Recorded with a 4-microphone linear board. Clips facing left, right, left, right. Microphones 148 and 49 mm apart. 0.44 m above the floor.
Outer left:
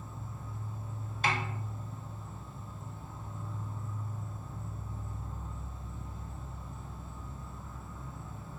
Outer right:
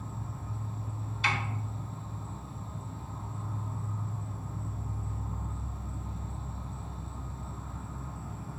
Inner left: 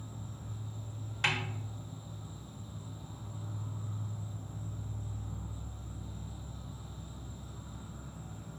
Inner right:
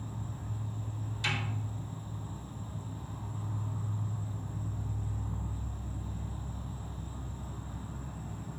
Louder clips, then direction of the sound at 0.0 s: Outer right 4 dB, inner right 4 dB; 70° right (ahead or behind).